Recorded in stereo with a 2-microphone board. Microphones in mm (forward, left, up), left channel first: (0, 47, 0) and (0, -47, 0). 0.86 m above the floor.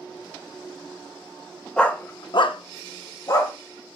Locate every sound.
1.8 s a dog barking: 10° left (ahead or behind), 1.1 m; by 3.5 s 40° left (ahead or behind), 1.9 m